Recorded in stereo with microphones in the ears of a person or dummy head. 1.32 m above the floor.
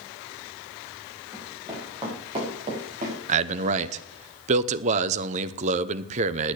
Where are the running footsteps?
15° right (ahead or behind), 7 m; by 3.2 s 40° right (ahead or behind), 7 m.